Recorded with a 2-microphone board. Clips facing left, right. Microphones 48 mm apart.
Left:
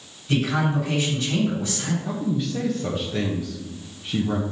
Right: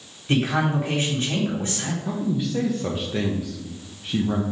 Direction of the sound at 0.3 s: 40° right (ahead or behind).